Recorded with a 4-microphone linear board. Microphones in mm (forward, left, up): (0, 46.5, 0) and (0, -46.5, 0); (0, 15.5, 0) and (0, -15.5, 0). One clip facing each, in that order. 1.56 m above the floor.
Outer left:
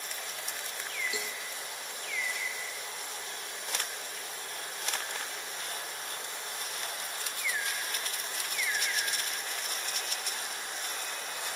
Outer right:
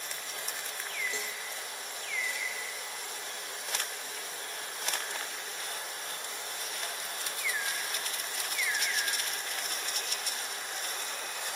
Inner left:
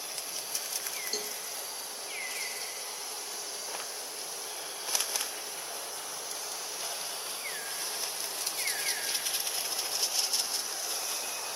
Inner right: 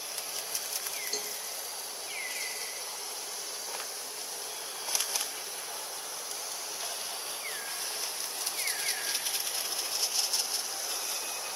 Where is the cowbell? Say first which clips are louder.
Outer left 1 dB, inner left 2 dB; 10° left (ahead or behind).